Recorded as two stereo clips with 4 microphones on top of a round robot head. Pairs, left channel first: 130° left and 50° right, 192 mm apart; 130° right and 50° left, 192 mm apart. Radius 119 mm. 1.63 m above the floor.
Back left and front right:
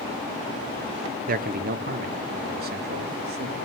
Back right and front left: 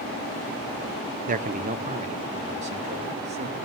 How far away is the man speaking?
About 0.9 m.